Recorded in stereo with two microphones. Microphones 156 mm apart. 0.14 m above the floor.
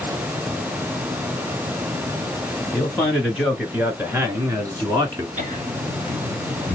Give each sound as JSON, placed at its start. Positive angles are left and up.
{"t": 2.7, "sound": "a man speaking", "side_deg": 0, "distance_m": 2.5}
{"t": 5.4, "sound": "laughter", "side_deg": -55, "distance_m": 1.6}